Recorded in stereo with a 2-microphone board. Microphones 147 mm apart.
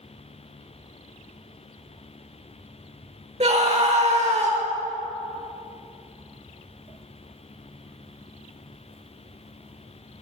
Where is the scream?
50° right (ahead or behind), 1.1 m.